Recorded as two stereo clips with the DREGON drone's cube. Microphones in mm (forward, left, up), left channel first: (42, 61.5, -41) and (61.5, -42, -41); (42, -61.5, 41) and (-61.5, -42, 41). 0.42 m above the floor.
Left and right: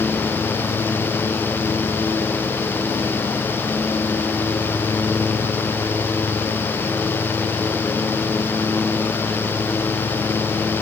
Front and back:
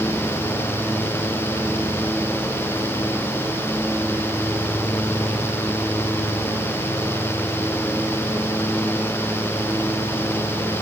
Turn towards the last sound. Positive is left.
No sound to turn to.